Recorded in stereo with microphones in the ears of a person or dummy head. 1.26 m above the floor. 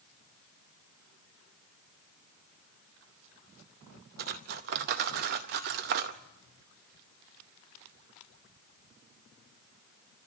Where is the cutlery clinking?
45° right (ahead or behind), 0.6 m.